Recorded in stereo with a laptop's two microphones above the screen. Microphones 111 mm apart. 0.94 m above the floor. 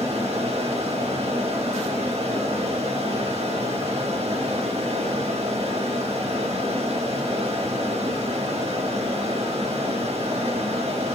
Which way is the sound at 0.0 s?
75° right (ahead or behind).